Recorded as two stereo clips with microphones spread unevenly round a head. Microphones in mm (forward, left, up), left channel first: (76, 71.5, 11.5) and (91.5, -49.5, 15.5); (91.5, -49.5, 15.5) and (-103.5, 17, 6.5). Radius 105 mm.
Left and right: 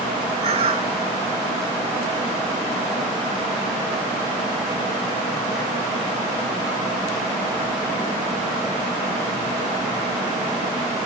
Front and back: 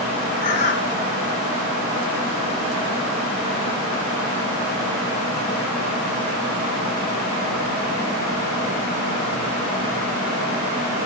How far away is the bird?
About 2 m.